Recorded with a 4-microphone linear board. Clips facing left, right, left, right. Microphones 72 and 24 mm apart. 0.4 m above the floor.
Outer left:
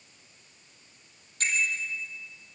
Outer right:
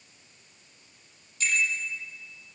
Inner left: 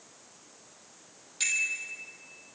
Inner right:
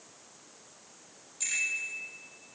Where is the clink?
No clink in this recording.